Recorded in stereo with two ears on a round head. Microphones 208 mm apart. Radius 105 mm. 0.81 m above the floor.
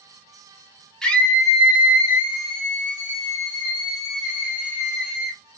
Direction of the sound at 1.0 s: 5° left (ahead or behind).